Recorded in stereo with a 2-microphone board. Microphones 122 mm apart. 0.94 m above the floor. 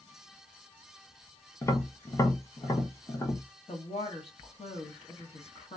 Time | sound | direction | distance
1.6 | tapping | 25° left (ahead or behind) | 1.0 m
3.7 | a woman speaking | 55° left (ahead or behind) | 1.3 m